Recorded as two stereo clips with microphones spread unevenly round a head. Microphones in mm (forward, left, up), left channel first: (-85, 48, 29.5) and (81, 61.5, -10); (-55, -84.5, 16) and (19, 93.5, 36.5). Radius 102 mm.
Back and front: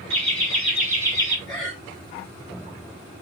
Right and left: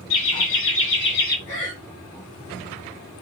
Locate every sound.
0.1 s laughter: 95° right, 1.6 m; by 1.4 s 65° right, 1.2 m
1.5 s breathing: 80° right, 1.7 m